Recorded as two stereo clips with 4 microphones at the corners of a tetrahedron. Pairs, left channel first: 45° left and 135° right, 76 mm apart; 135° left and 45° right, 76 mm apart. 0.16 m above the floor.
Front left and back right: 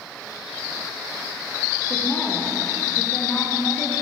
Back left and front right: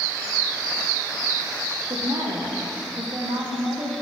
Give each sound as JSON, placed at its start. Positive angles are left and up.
{"t": 1.9, "sound": "a woman speaking", "azimuth_deg": -30, "distance_m": 7.5}